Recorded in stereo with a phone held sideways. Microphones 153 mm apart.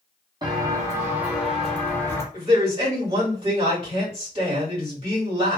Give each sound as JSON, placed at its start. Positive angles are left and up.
{"t": 0.4, "sound": "footsteps", "side_deg": -30, "distance_m": 1.2}
{"t": 2.3, "sound": "a man speaking", "side_deg": -40, "distance_m": 1.7}